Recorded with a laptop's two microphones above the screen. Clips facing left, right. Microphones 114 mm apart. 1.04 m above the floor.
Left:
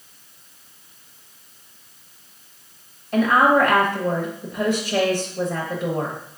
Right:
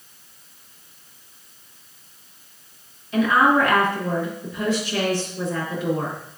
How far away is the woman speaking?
About 1.0 m.